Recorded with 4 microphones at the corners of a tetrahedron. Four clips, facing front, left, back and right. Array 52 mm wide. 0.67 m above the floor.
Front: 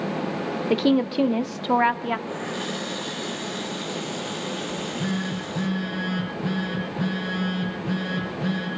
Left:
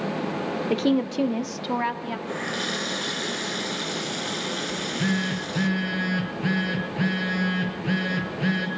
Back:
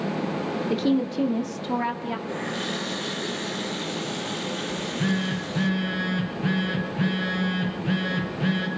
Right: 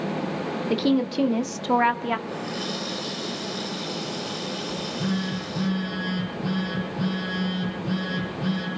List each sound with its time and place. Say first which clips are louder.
0.7 s a woman speaking: right 1 dB, front 4 dB; 20° left, 1.5 m; by 2.2 s 45° right, 1.4 m
2.3 s a running tap: left 2 dB, even; 100° left, 6 m
4.7 s a phone buzzing: left 2 dB, back 3 dB; 115° left, 7.5 m